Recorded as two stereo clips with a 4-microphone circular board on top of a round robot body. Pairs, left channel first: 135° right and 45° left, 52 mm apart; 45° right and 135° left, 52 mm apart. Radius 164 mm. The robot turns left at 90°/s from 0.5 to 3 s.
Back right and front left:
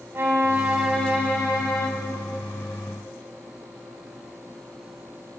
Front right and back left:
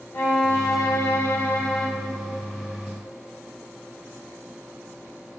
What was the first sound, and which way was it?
A violin, 10° right.